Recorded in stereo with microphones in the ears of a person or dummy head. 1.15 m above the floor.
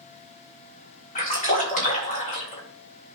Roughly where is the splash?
Left.